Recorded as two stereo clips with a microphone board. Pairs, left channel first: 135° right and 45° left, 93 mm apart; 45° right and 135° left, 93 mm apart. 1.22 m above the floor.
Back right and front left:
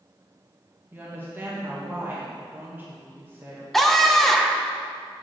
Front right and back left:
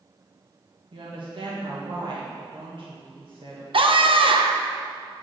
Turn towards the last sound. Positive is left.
turn(degrees=140)